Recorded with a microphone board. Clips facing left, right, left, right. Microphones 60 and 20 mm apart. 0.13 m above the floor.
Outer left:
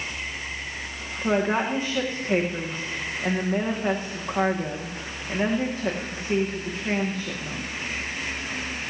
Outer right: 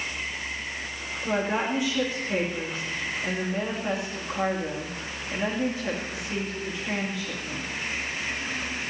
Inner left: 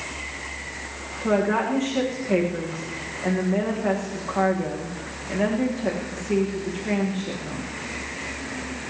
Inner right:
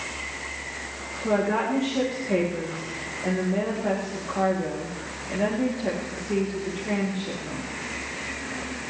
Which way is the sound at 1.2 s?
40° left (ahead or behind).